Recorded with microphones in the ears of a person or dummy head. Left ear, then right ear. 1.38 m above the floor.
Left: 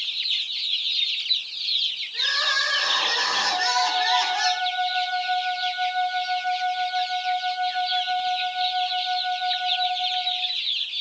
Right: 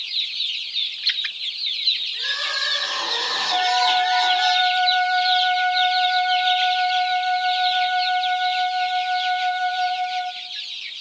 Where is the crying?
40° left (ahead or behind), 7 m.